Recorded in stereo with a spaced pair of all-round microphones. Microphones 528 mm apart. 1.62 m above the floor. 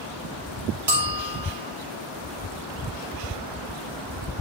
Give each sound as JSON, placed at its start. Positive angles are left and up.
{"t": 0.9, "sound": "a bell", "side_deg": -30, "distance_m": 3.0}